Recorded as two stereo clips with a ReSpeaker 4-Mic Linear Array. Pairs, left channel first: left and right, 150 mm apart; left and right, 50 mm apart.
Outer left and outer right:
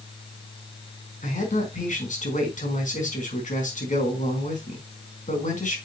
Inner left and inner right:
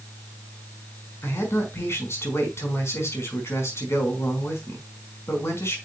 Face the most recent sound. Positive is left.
turn(degrees=60)  # may be behind; listen again after turning